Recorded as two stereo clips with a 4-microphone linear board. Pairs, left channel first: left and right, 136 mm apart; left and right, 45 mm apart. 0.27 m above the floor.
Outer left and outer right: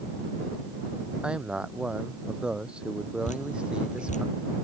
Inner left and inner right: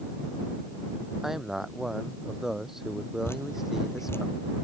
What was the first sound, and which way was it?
A man speaking, 5° right (ahead or behind).